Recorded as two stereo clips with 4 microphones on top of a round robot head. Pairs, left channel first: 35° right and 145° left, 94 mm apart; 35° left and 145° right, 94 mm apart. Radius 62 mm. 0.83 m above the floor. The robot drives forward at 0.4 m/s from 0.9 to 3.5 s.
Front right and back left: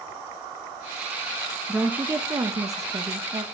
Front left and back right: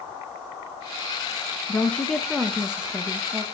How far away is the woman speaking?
About 0.6 m.